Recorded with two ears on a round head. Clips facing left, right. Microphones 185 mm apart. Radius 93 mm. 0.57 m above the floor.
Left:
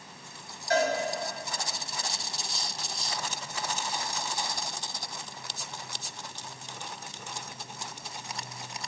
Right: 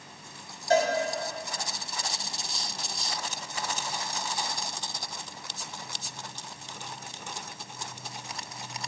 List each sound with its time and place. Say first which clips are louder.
0.7 s a cowbell: right 3 dB; 25° right (ahead or behind), 3 m